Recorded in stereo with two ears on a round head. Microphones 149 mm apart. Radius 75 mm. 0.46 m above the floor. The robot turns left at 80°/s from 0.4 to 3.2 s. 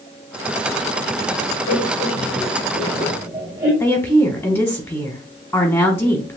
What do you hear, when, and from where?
1.7 s laughter: 60° left (ahead or behind), 2 m; by 3.7 s 20° right (ahead or behind), 2 m
3.8 s a woman speaking: 10° left (ahead or behind), 1.2 m